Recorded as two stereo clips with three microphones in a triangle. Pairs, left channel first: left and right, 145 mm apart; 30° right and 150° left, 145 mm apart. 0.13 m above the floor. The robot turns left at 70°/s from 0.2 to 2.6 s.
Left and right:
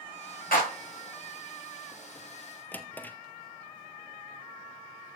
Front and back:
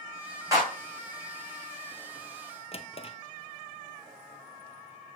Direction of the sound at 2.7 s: 10° left.